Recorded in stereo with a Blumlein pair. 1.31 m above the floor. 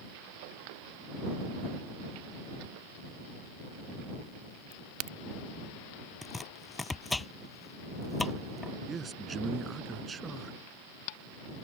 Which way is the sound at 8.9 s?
15° right.